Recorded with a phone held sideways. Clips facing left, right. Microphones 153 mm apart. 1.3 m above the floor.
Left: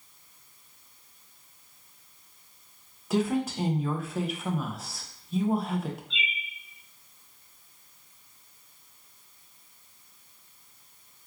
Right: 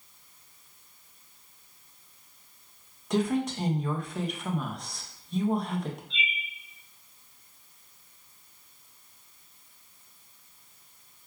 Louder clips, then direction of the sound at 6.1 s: Right 1 dB; 25° right (ahead or behind).